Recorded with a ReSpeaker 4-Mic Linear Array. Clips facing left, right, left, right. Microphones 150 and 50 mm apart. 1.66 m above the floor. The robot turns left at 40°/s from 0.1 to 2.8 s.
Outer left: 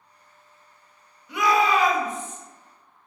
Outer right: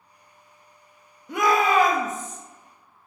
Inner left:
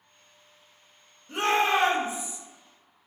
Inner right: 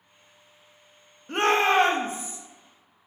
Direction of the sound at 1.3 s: 80° right.